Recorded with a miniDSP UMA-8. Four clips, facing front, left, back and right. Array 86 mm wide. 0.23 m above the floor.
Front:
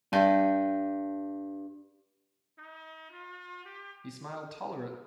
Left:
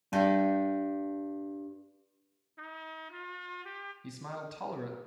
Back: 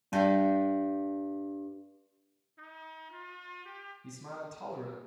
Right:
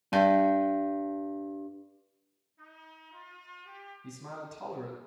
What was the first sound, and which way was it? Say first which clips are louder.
A guitar: right 3 dB, front 2 dB; 40° right.